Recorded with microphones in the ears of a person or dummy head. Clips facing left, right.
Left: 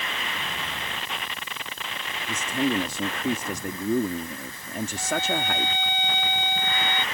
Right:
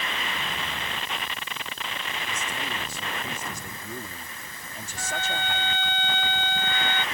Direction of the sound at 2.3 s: 50° left (ahead or behind).